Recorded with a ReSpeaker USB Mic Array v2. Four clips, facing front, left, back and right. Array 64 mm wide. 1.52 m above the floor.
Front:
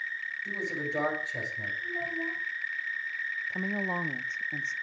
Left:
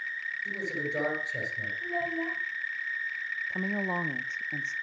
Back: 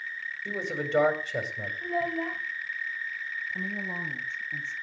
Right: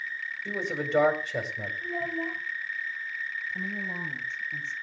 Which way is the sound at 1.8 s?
175° left.